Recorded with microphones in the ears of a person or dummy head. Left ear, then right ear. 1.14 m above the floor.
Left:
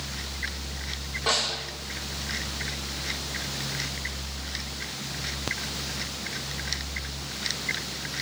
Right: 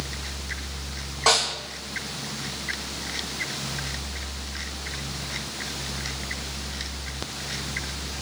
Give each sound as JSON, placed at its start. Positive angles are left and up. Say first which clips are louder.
{"t": 1.3, "sound": "a snare drum", "louder": "right 5 dB", "side_deg": -60, "distance_m": 6.0}